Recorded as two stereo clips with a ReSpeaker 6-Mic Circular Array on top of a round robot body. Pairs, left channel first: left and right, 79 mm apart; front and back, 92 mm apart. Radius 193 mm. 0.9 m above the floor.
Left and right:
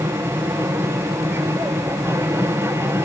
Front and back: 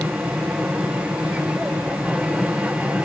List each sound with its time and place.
0.0 s an aircraft: 110° right